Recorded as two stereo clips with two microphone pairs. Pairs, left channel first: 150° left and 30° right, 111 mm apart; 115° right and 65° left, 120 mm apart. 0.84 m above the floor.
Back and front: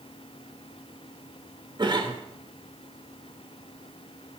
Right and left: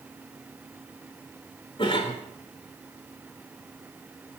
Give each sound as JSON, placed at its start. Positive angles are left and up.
{"t": 1.8, "sound": "a cough", "azimuth_deg": -75, "distance_m": 3.0}